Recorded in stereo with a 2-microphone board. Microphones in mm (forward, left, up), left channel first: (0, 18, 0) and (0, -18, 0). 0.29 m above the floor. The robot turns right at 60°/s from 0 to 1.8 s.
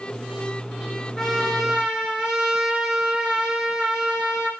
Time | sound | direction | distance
1.2 | a trumpet | 160° left | 5.5 m